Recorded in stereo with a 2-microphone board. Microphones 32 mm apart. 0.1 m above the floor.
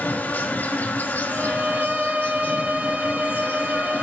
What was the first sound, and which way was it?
An insect, 75° left (ahead or behind).